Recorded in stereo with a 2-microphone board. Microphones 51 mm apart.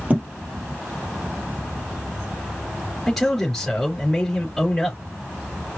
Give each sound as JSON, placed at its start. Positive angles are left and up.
{"t": 0.1, "sound": "a thud", "side_deg": -25, "distance_m": 1.8}
{"t": 3.1, "sound": "a man speaking", "side_deg": 5, "distance_m": 3.0}